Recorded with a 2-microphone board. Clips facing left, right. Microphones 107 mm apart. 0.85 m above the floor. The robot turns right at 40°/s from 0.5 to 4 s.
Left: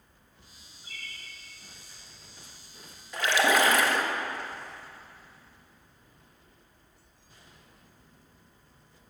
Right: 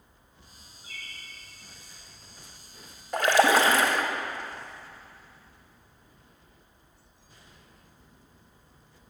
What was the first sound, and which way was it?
A bird, centre (ahead or behind).